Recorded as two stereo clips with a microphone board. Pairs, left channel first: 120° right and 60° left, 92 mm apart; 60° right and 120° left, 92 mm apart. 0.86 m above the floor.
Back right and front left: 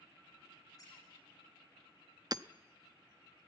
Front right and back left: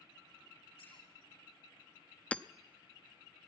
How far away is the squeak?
About 8.5 m.